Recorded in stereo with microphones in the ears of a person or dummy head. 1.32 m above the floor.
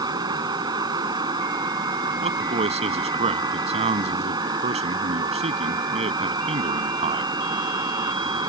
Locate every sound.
0.0 s a fan: 20° right (ahead or behind)
2.2 s a man speaking: 30° right (ahead or behind)